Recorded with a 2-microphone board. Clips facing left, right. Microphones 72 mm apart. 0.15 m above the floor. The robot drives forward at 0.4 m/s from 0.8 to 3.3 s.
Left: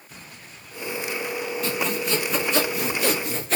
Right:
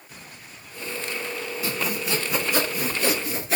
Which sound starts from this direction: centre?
Sawing, at 1.6 s.